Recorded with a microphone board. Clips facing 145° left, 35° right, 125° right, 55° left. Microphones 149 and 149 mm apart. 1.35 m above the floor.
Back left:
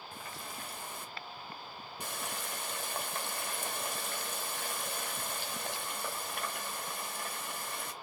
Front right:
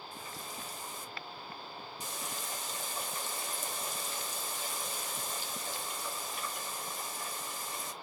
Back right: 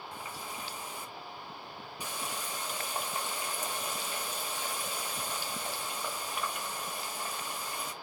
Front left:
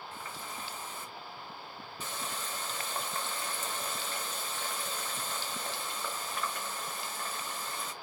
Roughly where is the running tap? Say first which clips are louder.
Back left 1 dB, back right 2 dB; behind.